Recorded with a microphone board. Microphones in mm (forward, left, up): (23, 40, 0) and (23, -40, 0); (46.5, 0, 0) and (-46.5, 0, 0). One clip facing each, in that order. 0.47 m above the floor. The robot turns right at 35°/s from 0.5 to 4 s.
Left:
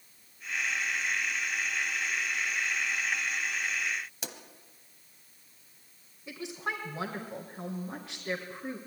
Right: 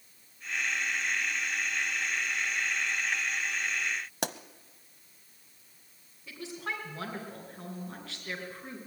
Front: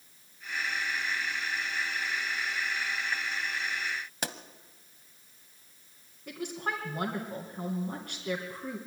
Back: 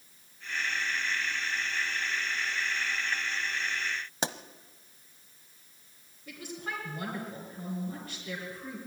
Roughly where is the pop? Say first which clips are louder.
Right 9 dB, back 5 dB; behind right.